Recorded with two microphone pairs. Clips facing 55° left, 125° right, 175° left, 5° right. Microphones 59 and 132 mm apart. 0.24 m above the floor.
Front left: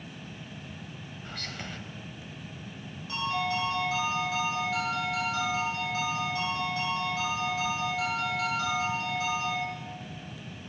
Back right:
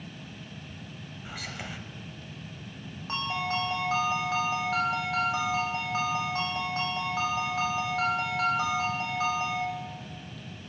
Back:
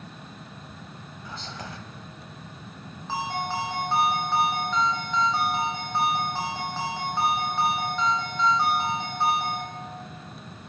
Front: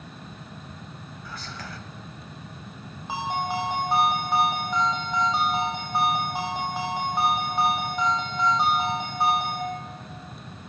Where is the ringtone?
80° right, 4 m.